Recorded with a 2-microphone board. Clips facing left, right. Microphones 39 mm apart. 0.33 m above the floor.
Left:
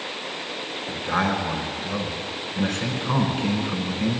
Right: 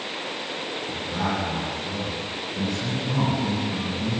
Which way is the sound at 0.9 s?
60° left (ahead or behind).